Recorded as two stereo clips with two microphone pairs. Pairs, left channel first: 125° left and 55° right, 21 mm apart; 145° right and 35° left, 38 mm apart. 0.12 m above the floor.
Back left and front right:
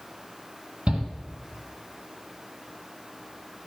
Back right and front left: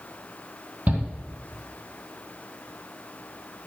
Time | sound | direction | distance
0.9 | a shout | 15° right | 2.5 m